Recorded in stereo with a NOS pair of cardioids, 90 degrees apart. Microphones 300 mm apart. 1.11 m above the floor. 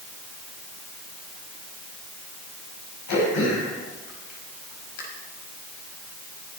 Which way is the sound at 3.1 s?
70° left.